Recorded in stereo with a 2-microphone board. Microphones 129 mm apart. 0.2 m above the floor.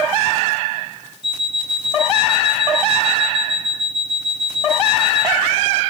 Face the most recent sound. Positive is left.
turn(degrees=-45)  # may be behind; listen again after turning